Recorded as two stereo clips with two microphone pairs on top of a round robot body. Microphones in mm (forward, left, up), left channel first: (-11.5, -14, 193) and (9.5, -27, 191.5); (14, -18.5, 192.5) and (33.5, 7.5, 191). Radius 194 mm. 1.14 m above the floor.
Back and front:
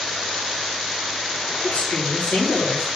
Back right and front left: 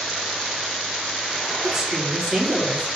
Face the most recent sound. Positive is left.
turn(degrees=130)